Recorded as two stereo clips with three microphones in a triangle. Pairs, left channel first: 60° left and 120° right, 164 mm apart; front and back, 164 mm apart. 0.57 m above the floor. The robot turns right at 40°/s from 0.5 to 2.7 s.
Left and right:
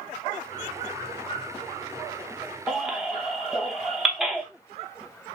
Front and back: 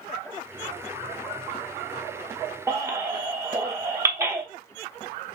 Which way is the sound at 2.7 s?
155° left.